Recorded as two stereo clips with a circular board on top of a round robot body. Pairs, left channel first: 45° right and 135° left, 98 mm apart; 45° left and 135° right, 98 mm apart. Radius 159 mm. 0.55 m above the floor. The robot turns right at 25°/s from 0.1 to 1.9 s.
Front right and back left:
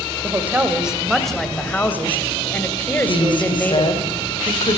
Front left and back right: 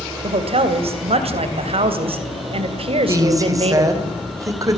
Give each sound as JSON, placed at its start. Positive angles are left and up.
{"t": 0.2, "sound": "a woman speaking", "azimuth_deg": -160, "distance_m": 3.0}
{"t": 3.1, "sound": "a woman speaking", "azimuth_deg": -80, "distance_m": 4.0}